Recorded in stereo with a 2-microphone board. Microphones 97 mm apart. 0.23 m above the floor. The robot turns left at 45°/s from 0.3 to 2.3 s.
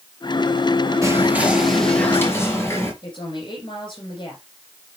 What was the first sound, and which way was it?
Whispering, 150° right.